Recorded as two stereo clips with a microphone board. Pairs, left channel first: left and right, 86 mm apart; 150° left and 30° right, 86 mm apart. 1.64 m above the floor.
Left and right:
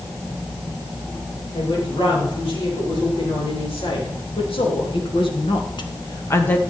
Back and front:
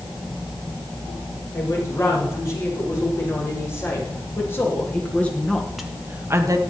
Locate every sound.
1.5 s a woman speaking: 100° left, 6.5 m; by 6.6 s 15° left, 1.2 m